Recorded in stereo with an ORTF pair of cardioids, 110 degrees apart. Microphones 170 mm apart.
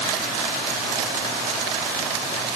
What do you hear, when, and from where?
Only background noise.